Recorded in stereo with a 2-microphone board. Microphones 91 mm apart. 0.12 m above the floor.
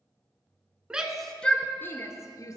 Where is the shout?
10° right (ahead or behind), 1.2 m; by 2.6 s 40° left (ahead or behind), 1.9 m.